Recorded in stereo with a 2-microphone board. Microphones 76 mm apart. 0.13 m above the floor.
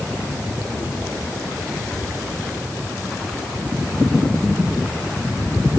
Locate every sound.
Only background noise.